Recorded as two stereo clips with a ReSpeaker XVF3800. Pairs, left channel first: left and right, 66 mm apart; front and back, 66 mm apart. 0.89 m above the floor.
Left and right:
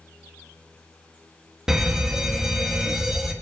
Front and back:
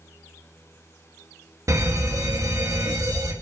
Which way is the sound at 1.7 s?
170° right.